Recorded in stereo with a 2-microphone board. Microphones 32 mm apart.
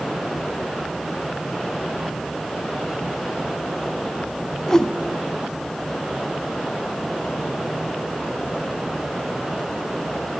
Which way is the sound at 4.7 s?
20° left (ahead or behind).